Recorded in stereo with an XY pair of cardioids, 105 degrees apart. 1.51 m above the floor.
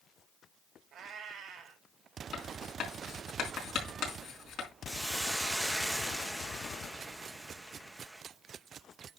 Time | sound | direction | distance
0.9 | a cat meowing | 65° right | 3.5 m
2.3 | writing | 70° left | 4.5 m
4.9 | a hiss | 10° right | 1.5 m